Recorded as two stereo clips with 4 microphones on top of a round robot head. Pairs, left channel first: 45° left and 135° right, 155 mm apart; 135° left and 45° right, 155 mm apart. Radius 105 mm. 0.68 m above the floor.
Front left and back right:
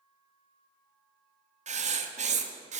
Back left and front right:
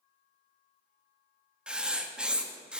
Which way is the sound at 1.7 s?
130° right.